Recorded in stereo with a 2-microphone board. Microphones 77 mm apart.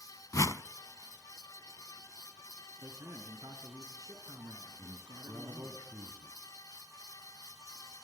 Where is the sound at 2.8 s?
55° right (ahead or behind), 2.5 m.